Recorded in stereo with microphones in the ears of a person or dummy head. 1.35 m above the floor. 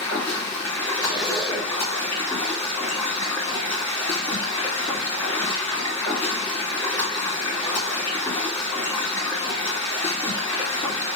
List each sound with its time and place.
0.0 s running water: 15° left (ahead or behind), 2.5 m
1.0 s a zipper: 5° right (ahead or behind), 1.5 m